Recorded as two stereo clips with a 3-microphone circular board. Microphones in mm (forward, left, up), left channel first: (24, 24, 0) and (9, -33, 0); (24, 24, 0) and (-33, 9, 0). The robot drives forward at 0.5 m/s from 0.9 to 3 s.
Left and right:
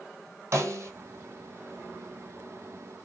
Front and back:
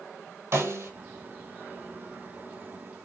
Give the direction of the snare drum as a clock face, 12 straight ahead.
5 o'clock.